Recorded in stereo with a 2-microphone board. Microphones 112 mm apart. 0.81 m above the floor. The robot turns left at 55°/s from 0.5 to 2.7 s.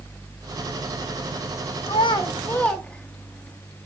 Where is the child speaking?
55° left (ahead or behind), 0.7 m; by 3.6 s 10° left (ahead or behind), 0.7 m.